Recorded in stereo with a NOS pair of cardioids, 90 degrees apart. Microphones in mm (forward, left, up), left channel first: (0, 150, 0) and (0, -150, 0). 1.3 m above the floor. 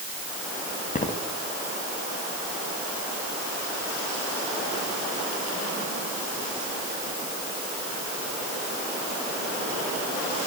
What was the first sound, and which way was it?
Footsteps, 25° left.